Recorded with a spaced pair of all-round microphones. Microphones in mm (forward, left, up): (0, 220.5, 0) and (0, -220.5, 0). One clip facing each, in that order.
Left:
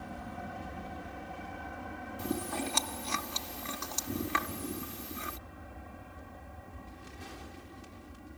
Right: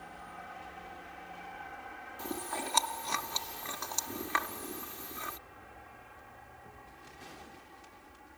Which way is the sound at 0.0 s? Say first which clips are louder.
Left 8 dB; 60° left (ahead or behind).